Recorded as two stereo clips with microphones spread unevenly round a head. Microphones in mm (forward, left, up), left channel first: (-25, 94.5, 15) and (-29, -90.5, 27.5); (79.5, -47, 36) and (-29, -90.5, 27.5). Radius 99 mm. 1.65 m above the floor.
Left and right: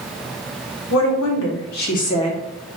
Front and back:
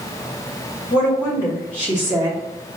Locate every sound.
0.9 s a woman speaking: 85° left, 1.3 m; by 2.8 s 175° right, 0.7 m